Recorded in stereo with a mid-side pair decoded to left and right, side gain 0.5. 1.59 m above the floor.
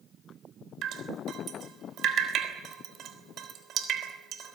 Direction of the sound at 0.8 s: 65° right.